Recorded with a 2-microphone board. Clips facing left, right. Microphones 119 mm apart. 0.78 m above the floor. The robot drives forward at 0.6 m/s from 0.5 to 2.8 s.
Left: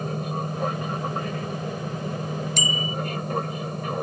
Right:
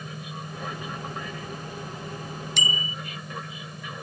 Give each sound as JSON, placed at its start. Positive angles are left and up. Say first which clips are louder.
{"t": 0.0, "sound": "an aircraft", "louder": "left 9 dB", "side_deg": 50}
{"t": 2.6, "sound": "a bicycle bell", "louder": "left 5 dB", "side_deg": 45}